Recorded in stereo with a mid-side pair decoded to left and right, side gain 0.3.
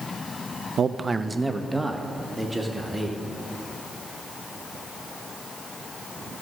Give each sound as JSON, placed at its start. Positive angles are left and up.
{"t": 0.8, "sound": "a man speaking", "azimuth_deg": -70, "distance_m": 0.5}